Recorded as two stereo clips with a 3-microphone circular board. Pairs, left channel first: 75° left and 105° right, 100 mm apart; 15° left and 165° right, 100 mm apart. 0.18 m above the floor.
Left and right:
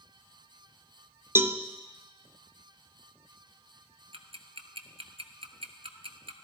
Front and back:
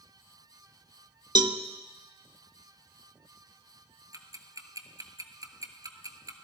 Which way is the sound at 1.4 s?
160° right.